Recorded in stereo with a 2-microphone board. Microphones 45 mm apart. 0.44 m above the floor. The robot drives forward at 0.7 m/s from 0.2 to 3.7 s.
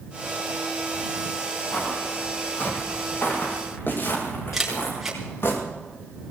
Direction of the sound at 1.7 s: 35° left (ahead or behind).